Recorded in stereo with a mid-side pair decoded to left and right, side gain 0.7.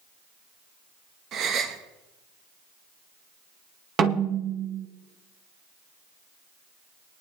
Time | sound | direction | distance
1.3 | a gasp | 45° right | 1.3 m
4.0 | a snare drum | 40° right | 2 m